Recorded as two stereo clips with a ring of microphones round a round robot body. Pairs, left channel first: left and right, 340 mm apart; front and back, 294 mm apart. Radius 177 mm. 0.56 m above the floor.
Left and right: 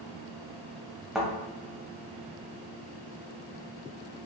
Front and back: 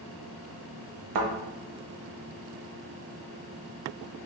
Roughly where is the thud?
Behind.